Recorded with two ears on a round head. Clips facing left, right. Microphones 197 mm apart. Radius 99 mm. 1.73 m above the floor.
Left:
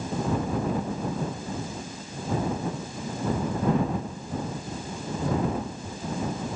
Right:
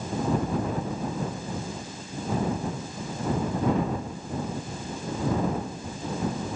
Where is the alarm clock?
No alarm clock in this recording.